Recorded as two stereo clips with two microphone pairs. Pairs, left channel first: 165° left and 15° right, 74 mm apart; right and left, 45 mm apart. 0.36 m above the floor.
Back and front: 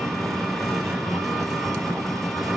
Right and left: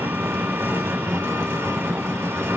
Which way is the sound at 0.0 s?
75° left.